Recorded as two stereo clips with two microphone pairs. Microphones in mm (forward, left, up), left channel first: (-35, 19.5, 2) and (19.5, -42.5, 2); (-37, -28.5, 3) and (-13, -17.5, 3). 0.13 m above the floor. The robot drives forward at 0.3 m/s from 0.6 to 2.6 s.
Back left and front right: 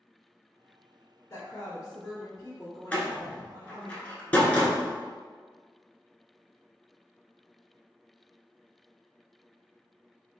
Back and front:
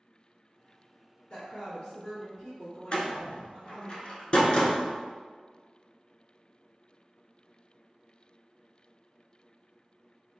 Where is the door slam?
165° right, 0.9 m.